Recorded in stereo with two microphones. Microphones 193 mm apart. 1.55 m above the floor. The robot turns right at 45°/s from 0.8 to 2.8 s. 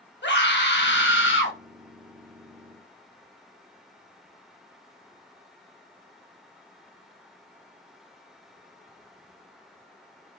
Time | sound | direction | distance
0.2 | a scream | 70° left | 1.4 m